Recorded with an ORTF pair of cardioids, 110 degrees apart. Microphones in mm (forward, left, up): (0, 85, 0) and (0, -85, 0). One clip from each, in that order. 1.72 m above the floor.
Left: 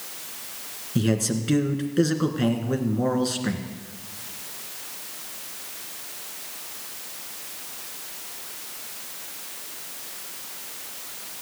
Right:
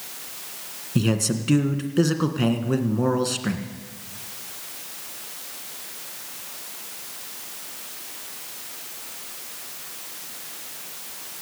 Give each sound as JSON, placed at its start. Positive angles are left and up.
{"t": 0.9, "sound": "a man speaking", "azimuth_deg": -20, "distance_m": 1.7}